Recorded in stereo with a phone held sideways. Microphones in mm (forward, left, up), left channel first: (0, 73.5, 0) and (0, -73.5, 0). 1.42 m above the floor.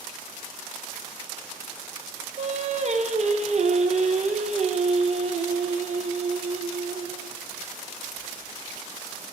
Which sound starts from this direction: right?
Singing, at 2.4 s.